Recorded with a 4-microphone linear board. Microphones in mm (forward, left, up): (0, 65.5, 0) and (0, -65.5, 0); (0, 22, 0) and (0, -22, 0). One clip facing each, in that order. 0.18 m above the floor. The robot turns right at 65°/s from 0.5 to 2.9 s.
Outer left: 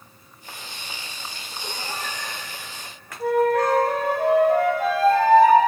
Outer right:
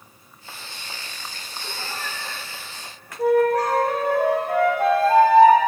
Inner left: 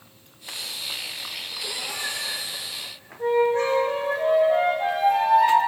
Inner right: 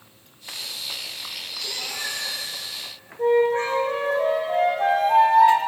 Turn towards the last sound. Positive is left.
turn(degrees=-55)  # may be behind; listen again after turning